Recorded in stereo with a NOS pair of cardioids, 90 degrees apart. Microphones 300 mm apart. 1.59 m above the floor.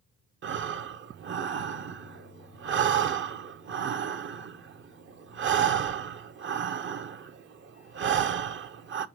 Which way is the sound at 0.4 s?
45° right.